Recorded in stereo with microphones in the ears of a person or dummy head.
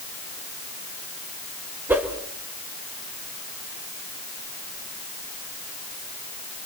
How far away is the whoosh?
About 1.7 m.